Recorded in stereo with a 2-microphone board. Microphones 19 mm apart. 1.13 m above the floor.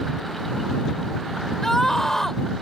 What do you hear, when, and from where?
1.6 s a scream: 20° left (ahead or behind)